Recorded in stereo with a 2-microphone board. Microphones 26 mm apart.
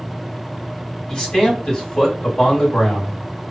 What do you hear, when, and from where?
1.1 s a man speaking: 25° left (ahead or behind), 1.8 m